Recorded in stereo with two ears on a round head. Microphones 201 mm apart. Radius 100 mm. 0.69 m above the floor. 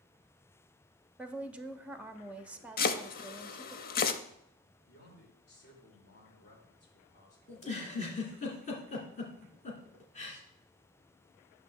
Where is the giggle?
30° left (ahead or behind), 2.0 m.